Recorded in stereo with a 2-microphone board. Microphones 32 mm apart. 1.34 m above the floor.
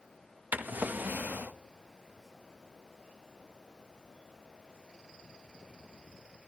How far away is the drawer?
About 1.0 m.